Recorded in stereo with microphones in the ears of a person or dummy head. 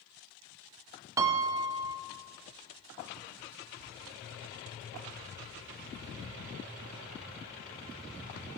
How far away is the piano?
About 0.6 m.